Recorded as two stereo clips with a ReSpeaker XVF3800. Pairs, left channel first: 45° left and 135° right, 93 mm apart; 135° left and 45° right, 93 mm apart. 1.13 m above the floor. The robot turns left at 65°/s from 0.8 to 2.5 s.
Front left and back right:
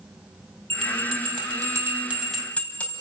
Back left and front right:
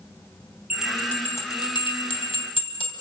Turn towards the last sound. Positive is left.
turn(degrees=120)